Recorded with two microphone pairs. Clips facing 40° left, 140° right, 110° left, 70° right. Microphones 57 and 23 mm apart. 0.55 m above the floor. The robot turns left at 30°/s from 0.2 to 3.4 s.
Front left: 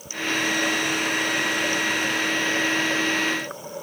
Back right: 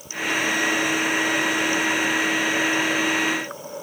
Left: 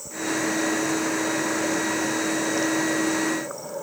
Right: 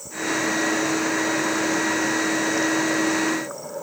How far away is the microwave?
No microwave in this recording.